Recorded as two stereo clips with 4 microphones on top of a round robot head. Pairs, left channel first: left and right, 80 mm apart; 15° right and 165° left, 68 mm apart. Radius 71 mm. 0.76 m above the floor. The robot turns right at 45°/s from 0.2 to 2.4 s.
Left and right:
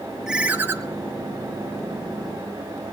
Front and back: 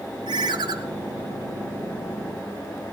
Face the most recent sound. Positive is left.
turn(degrees=-75)